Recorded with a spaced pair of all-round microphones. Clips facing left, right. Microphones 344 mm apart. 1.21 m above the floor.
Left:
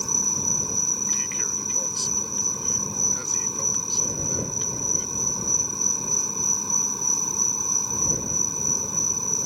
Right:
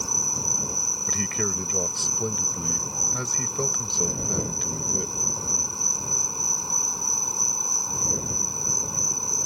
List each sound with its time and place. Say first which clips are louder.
0.0 s an insect: left 2 dB; 25° left (ahead or behind)
1.1 s a man speaking: right 7 dB; 75° right (ahead or behind)